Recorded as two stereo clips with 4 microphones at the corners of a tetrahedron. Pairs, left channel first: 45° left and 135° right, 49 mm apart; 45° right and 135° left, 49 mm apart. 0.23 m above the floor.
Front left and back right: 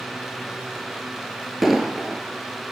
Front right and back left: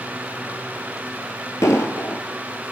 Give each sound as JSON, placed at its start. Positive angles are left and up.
{"t": 1.6, "sound": "an explosion", "azimuth_deg": -50, "distance_m": 1.3}